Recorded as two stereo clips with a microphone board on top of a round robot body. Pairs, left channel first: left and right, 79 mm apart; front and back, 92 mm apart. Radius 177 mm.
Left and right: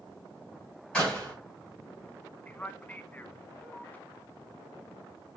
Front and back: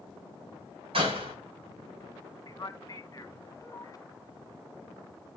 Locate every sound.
0.9 s a door slam: 170° left, 5.5 m
2.5 s a man speaking: 30° left, 1.2 m